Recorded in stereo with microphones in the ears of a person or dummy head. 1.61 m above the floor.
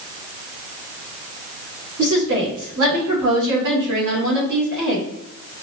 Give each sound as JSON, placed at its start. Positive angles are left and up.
{"t": 2.0, "sound": "a woman speaking", "side_deg": -65, "distance_m": 2.5}